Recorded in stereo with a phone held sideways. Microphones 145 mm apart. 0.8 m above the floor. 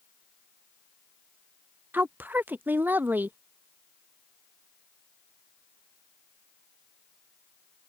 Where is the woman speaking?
10° right (ahead or behind).